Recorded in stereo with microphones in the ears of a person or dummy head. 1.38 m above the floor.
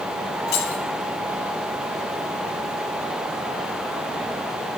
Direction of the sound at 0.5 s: 40° left (ahead or behind).